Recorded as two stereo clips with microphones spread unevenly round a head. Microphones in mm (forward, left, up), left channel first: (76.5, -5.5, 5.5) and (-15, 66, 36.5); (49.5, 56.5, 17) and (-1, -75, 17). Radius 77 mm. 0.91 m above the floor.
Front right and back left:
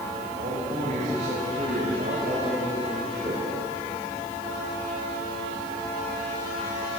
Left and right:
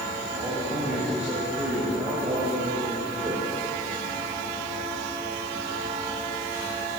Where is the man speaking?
165° left, 5 m; by 3.4 s 175° right, 5 m.